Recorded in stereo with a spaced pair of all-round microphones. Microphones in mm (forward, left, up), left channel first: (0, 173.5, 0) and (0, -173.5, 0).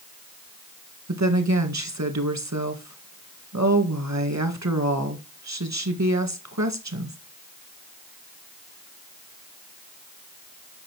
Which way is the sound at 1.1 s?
50° right (ahead or behind).